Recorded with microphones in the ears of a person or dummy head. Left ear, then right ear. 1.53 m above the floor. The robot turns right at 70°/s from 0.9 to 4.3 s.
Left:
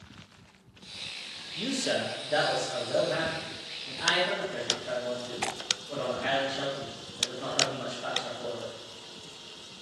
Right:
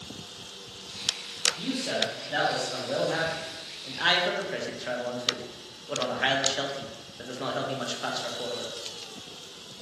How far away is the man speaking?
About 0.7 m.